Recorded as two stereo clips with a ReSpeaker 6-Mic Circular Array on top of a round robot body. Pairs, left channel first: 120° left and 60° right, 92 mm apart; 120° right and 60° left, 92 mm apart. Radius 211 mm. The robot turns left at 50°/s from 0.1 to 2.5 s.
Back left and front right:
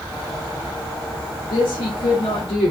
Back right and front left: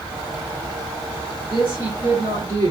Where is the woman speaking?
140° left, 3.5 m; by 2.7 s 90° left, 3.5 m.